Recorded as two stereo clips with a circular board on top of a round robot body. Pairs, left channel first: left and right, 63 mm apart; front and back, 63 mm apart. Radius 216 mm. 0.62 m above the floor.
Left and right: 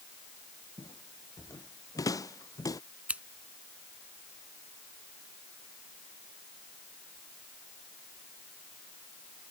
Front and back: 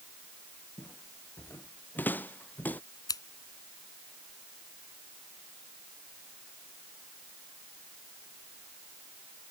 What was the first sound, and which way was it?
Footsteps, 60° left.